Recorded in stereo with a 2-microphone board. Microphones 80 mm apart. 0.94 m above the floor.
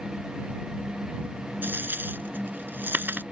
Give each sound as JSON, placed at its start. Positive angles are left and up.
{"t": 1.6, "sound": "a dropped coin", "side_deg": -25}